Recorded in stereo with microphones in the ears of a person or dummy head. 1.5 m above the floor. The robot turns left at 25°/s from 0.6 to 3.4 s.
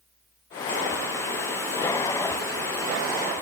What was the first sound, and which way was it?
Only background noise.